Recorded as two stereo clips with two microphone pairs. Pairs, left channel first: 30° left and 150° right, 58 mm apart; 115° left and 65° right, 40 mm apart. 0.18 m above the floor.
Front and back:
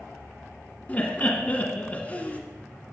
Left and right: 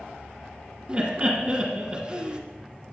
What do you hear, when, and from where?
0.9 s laughter: 20° right, 1.5 m